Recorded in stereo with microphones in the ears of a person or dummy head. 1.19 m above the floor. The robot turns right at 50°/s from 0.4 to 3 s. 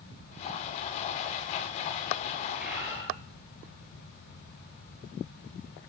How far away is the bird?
About 9 m.